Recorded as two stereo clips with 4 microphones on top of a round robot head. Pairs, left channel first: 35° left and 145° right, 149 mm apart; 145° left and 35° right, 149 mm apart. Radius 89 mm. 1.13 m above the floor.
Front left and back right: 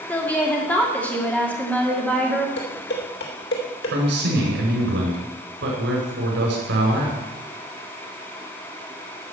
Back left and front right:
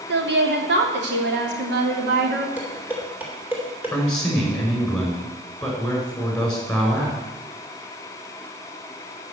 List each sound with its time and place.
0.1 s a woman speaking: 45° right, 2.5 m
2.6 s dishes clattering: 40° left, 3 m
3.9 s a man speaking: 135° right, 5 m